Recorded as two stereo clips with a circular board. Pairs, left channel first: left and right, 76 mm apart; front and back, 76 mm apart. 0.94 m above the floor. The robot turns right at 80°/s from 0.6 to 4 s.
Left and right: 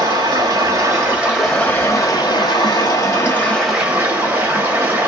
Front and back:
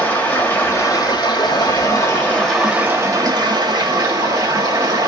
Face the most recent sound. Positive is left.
turn(degrees=-155)